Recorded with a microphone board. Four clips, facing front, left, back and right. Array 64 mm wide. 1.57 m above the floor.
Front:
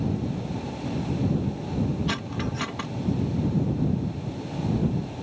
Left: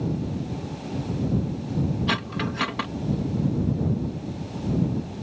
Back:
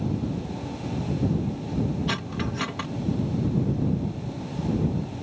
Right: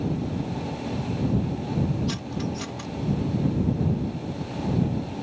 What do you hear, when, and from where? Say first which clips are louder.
2.1 s cutlery clinking: left 3 dB, even; 95° left